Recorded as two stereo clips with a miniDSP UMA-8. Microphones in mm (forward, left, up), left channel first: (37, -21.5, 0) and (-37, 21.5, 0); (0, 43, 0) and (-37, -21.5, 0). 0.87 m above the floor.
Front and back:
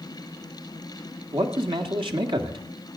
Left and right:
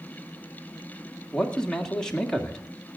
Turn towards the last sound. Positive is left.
turn(degrees=140)